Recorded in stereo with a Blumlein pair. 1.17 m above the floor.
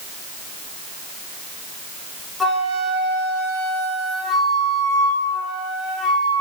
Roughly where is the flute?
Ahead.